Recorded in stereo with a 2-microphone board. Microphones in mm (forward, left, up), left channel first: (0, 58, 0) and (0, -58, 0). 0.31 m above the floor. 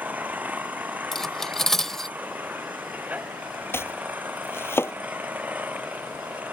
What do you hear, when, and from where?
0.0 s an engine running: 15° right (ahead or behind)
1.1 s cutlery clinking: 5° left (ahead or behind)
3.7 s chopping: 20° left (ahead or behind)